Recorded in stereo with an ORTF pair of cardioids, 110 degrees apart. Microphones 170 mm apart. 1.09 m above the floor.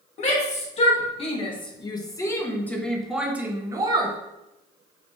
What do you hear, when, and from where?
0.2 s a shout: 45° left, 2.5 m; by 4.2 s 30° right, 1.4 m